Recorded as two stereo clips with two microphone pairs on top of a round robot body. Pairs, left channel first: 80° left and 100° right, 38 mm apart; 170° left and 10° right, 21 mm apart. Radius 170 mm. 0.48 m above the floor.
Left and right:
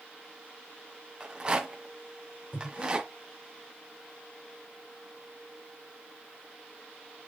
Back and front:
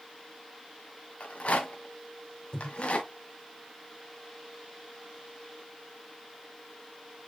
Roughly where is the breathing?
Behind left.